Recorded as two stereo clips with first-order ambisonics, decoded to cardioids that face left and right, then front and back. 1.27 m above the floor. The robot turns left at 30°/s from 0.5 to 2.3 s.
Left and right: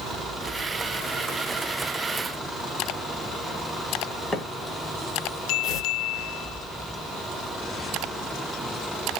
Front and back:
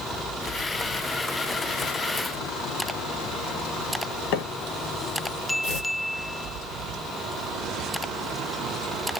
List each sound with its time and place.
4.3 s a microwave: 10° left, 0.8 m
5.6 s tearing paper: 45° left, 1.5 m